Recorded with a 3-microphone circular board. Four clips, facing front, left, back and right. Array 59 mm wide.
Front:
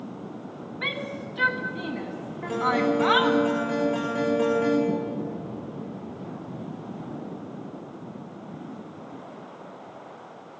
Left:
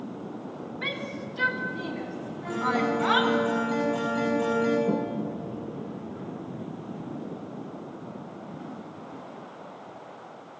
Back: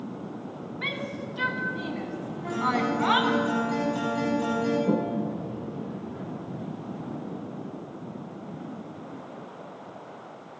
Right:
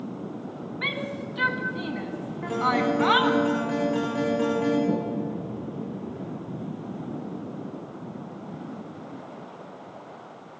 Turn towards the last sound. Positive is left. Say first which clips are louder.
# right 1 dB, back 2 dB
turn(degrees=-170)